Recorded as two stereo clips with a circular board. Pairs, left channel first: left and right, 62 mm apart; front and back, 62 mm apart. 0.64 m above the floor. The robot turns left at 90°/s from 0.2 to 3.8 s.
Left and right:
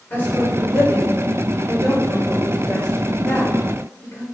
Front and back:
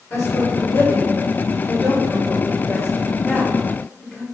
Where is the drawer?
No drawer in this recording.